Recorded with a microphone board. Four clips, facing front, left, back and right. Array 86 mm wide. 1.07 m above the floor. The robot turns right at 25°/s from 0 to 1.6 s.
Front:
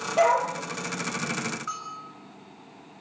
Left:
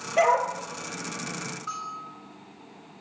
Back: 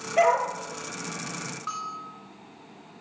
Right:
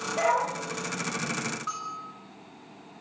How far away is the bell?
About 5 m.